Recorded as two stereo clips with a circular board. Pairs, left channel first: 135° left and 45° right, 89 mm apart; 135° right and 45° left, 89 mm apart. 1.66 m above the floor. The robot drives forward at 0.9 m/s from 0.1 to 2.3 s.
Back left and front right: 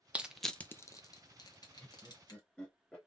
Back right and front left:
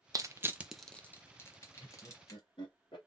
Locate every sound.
0.1 s crushing: 25° left, 0.6 m; by 2.4 s 175° left, 1.6 m
1.8 s laughter: 140° right, 1.3 m; by 3.0 s 150° right, 1.7 m